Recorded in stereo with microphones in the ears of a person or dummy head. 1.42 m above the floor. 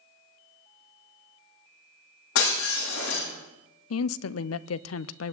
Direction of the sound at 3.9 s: 70° left (ahead or behind).